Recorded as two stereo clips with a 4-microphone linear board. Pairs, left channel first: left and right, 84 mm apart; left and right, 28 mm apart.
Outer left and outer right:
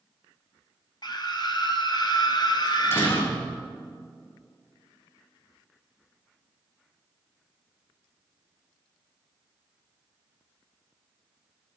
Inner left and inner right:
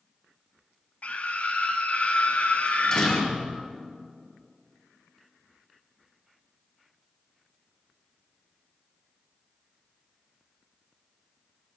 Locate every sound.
1.0 s a scream: 55° left (ahead or behind), 2.0 m
2.7 s a door slam: 25° left (ahead or behind), 4 m